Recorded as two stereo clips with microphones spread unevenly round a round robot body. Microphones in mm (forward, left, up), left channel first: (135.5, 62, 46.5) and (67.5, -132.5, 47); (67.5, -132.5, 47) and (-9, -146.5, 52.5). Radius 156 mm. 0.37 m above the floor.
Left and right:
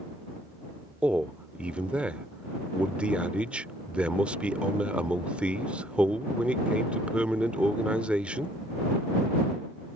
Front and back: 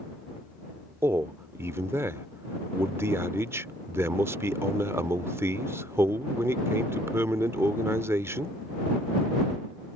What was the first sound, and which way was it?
A man speaking, 170° left.